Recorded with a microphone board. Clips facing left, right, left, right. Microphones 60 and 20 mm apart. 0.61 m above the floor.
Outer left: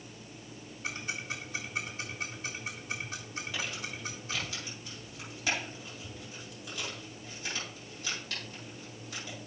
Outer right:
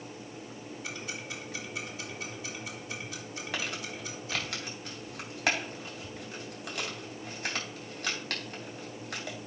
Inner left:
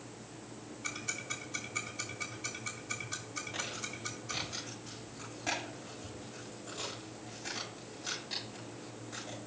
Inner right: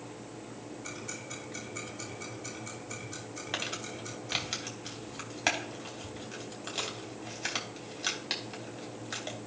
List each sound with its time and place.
0.8 s ticking: 50° left (ahead or behind), 3.5 m
3.5 s crumpling: 65° right (ahead or behind), 3 m